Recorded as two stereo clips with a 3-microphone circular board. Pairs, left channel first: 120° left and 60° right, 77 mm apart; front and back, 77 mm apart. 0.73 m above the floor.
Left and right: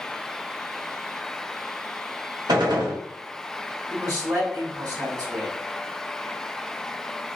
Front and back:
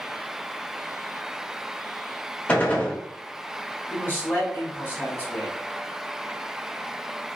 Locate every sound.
2.5 s a gunshot: 70° right, 0.7 m
3.9 s a man speaking: 60° right, 1.6 m